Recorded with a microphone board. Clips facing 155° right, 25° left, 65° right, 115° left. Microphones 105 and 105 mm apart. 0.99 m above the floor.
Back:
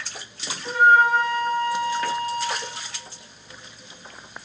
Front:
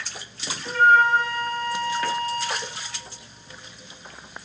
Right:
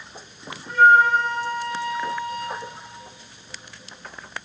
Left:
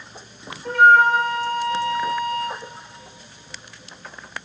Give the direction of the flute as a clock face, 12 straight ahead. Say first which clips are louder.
Back 1 dB, left 1 dB; 8 o'clock.